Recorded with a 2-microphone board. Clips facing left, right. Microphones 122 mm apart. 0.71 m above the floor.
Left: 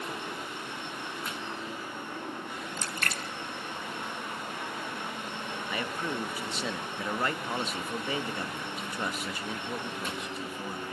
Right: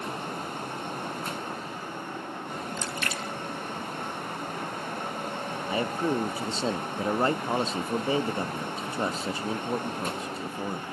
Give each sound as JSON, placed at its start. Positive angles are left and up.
{"t": 2.8, "sound": "a splash", "side_deg": 45, "distance_m": 1.1}
{"t": 5.7, "sound": "a man speaking", "side_deg": -30, "distance_m": 0.5}